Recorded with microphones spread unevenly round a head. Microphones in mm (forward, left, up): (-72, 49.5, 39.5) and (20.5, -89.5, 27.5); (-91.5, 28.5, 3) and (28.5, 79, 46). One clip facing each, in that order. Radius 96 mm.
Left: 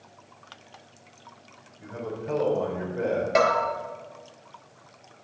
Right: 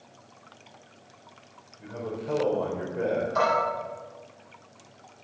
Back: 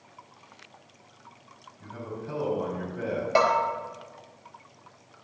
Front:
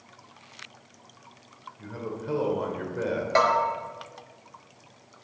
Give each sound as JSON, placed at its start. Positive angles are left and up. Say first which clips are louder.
{"t": 1.8, "sound": "a man speaking", "louder": "even, front 3 dB", "azimuth_deg": 30, "distance_m": 4.0}
{"t": 3.4, "sound": "a bell", "louder": "left 5 dB, even", "azimuth_deg": 125, "distance_m": 4.5}